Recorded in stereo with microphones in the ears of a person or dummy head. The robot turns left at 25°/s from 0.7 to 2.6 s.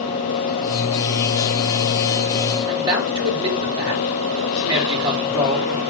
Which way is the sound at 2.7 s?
20° right (ahead or behind).